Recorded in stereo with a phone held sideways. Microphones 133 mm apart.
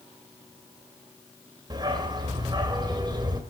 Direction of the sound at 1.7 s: 35° right (ahead or behind).